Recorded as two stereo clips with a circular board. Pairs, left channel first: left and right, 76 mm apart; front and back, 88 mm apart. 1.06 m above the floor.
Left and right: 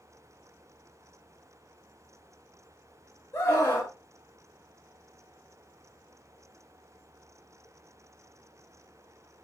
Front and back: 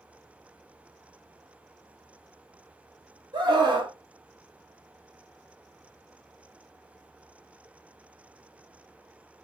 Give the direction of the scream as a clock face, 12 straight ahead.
7 o'clock.